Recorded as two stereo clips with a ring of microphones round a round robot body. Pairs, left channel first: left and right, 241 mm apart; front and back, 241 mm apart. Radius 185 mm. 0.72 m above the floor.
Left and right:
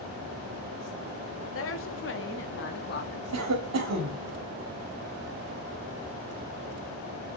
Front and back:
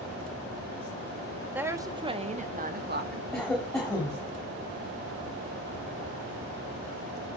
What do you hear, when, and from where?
1.6 s a woman speaking: 100° left, 1.6 m; by 3.2 s 140° left, 2.0 m
3.3 s a cough: 85° right, 1.6 m